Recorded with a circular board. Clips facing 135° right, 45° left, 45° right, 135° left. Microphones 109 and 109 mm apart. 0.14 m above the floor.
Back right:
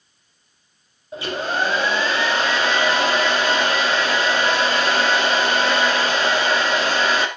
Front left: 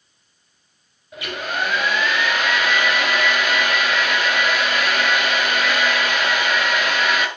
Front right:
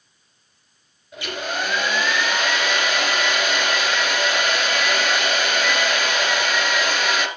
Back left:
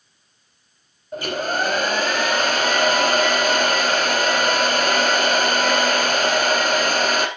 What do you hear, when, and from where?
1.1 s a hair dryer: 175° left, 1.4 m